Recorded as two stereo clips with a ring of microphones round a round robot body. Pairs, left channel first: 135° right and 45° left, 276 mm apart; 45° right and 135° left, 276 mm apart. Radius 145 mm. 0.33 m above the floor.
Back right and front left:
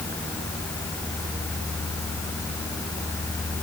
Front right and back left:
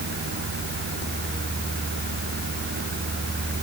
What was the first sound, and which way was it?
Only background noise.